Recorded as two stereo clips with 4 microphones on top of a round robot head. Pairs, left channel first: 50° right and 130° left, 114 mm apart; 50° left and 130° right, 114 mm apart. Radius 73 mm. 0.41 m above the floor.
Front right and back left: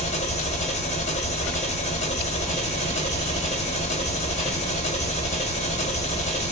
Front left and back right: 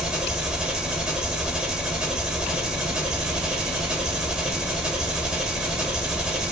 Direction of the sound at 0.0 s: 45° right.